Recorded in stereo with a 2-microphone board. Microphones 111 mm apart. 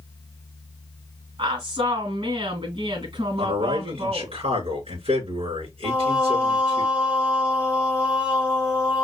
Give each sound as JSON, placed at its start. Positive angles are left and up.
{"t": 1.4, "sound": "a woman speaking", "side_deg": -50, "distance_m": 2.0}
{"t": 3.4, "sound": "a man speaking", "side_deg": -65, "distance_m": 4.0}
{"t": 5.8, "sound": "singing", "side_deg": -10, "distance_m": 0.8}